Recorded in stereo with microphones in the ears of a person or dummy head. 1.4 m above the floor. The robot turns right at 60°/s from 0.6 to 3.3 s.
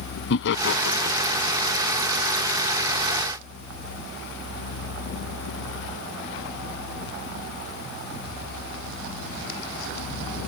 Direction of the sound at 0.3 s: 65° left (ahead or behind).